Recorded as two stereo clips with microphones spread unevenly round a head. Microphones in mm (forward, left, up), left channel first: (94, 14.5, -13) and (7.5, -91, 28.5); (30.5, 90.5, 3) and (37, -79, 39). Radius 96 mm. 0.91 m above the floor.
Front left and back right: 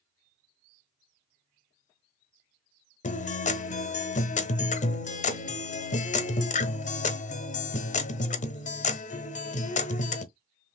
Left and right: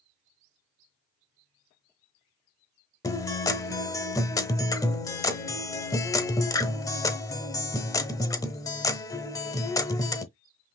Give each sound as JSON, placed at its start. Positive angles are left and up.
{"t": 3.0, "sound": "a guitar", "azimuth_deg": 15, "distance_m": 0.8}